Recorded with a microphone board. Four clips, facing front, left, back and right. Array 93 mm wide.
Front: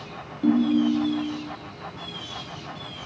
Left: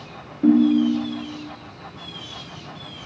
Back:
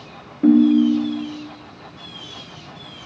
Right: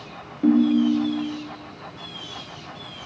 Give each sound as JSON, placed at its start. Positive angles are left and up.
{"t": 0.4, "sound": "a ringtone", "azimuth_deg": 180, "distance_m": 1.1}